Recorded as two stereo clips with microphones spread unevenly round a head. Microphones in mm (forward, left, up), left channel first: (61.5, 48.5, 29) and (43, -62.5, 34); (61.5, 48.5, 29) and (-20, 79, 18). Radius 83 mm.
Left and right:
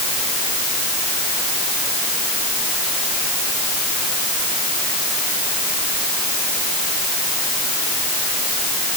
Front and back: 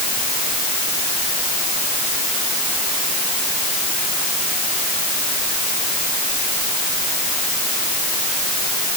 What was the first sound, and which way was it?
Only background noise.